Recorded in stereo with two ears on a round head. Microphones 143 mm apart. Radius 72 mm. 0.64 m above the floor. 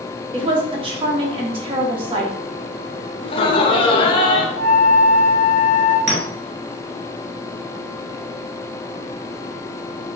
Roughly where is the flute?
Left.